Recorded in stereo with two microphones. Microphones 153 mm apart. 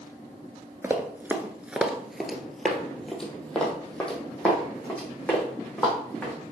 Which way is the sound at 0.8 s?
15° right (ahead or behind).